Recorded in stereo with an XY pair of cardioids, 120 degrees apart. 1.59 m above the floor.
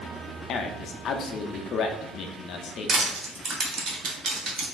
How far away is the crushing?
About 1.2 m.